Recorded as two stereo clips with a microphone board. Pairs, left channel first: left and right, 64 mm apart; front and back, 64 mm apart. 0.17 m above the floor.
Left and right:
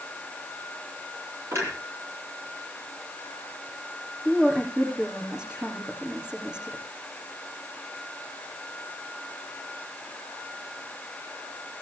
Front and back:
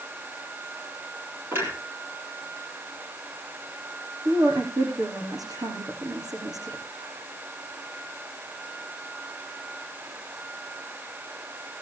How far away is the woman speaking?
About 8 m.